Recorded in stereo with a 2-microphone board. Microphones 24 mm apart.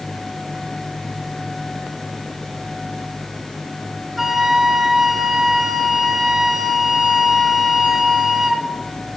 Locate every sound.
4.2 s a flute: 15° right (ahead or behind), 0.8 m